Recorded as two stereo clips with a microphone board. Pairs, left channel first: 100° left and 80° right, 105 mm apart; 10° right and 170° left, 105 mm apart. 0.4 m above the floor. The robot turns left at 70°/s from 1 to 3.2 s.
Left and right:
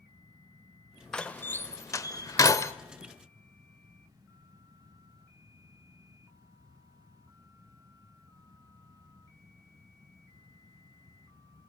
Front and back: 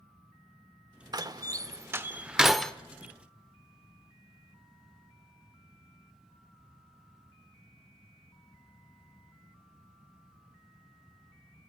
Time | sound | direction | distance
1.1 | a door slam | 175° left | 0.8 m